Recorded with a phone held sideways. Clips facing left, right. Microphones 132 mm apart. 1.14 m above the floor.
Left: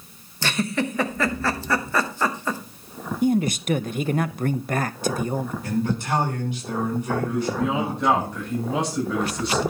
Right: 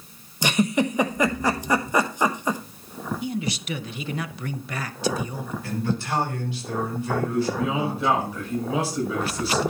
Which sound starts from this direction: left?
A man speaking, at 3.2 s.